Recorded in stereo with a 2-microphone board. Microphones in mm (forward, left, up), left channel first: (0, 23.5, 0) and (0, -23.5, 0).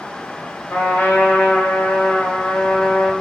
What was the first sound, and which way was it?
A trumpet, 40° left (ahead or behind).